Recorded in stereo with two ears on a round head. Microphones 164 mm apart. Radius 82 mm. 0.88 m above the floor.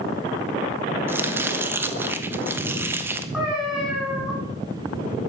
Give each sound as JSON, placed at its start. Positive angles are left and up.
{"t": 1.1, "sound": "chopping", "side_deg": -15, "distance_m": 1.0}
{"t": 3.3, "sound": "a cat meowing", "side_deg": -5, "distance_m": 6.0}